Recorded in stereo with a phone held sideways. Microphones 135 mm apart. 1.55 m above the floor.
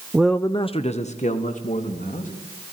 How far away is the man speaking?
About 0.7 m.